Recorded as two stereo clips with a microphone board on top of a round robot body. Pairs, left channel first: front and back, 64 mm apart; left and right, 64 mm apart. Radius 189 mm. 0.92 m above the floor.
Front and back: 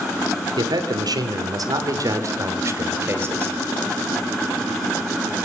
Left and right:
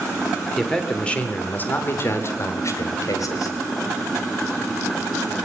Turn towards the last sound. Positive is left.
turn(degrees=120)